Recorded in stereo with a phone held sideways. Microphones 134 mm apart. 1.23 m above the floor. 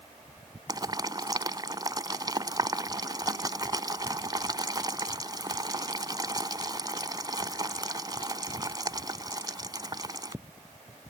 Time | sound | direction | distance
0.7 | boiling | 30° right (ahead or behind) | ?